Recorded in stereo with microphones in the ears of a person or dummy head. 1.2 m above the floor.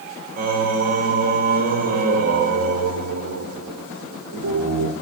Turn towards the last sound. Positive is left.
turn(degrees=-55)  # may be behind; listen again after turning